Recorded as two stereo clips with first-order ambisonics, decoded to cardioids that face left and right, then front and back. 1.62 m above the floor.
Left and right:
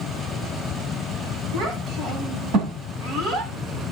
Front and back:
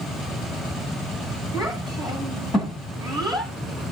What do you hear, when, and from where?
1.5 s a child speaking: 70° right, 9.5 m